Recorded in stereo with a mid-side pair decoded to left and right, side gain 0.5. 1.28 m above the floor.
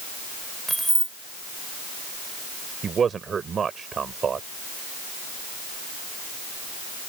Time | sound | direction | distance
0.7 | keys jangling | 10° right | ?
2.8 | a man speaking | 40° right | ?